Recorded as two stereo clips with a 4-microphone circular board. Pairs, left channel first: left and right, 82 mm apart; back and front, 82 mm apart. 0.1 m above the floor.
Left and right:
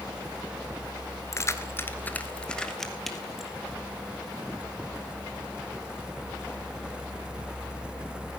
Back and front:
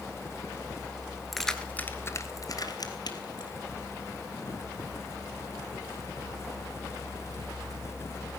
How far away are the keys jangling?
About 1.3 m.